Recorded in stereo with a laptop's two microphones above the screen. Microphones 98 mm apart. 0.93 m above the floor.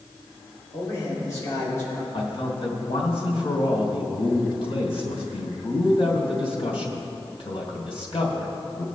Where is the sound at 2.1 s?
70° left (ahead or behind), 3 m.